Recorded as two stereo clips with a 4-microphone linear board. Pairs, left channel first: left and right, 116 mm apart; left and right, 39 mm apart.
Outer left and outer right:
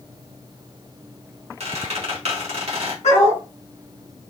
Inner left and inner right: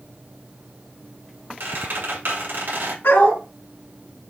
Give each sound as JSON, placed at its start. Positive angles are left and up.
{"t": 1.6, "sound": "a squeak", "side_deg": -70, "distance_m": 1.7}
{"t": 3.0, "sound": "a dog barking", "side_deg": 85, "distance_m": 3.0}